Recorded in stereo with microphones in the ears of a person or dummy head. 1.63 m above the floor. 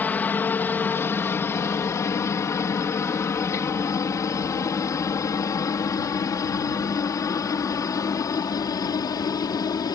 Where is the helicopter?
10° left (ahead or behind); by 10.0 s 20° left (ahead or behind).